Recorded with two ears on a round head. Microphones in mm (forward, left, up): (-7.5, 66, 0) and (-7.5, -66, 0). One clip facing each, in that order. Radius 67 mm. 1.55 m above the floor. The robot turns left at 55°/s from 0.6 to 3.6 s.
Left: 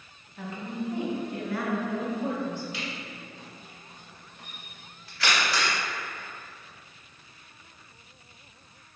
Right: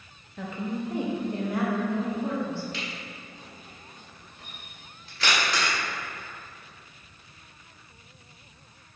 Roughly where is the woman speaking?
Right.